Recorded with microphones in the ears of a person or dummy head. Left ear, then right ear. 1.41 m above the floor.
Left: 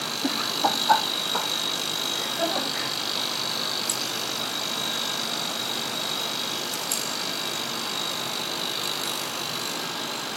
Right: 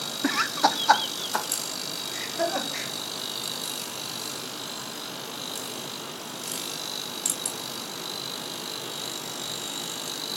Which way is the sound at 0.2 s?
45° right (ahead or behind).